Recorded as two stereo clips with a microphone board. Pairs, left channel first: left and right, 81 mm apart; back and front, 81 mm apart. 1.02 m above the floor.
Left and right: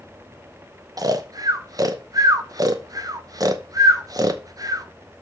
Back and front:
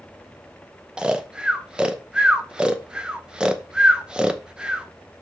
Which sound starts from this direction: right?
Snoring, at 1.0 s.